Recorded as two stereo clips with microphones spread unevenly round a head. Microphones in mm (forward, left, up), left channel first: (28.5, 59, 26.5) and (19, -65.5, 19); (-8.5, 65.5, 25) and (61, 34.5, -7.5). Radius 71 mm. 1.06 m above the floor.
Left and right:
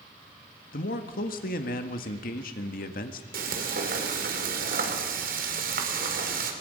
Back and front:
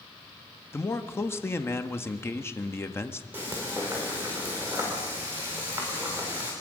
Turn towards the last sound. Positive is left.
turn(degrees=-100)